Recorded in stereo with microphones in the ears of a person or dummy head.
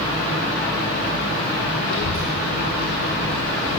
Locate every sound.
1.9 s a child speaking: 50° left (ahead or behind), 0.8 m; by 3.8 s 40° left (ahead or behind), 1.8 m